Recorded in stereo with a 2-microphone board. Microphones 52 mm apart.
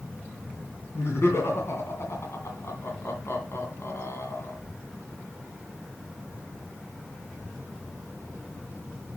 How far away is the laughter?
About 2 m.